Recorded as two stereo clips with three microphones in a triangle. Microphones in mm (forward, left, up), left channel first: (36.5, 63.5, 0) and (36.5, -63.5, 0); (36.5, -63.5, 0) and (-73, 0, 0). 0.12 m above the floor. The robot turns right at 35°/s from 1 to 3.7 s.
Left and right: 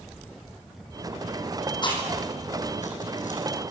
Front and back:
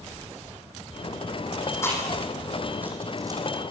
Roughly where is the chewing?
Ahead left.